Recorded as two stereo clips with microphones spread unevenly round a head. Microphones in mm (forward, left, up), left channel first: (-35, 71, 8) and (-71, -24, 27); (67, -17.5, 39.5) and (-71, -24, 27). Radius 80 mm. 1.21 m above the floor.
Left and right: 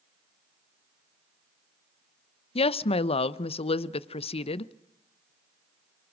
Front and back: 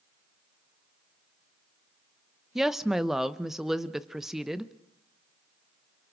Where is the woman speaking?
95° left, 0.8 m.